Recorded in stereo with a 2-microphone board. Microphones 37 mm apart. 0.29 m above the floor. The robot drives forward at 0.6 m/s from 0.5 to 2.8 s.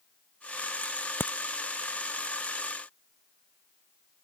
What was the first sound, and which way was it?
A crack, 85° left.